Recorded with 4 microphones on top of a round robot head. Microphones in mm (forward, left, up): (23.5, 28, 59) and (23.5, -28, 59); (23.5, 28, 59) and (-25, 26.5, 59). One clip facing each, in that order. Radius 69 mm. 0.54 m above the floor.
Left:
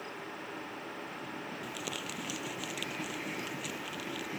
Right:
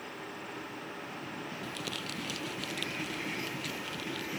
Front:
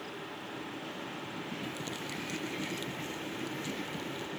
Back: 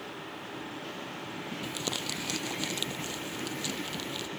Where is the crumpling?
170° left.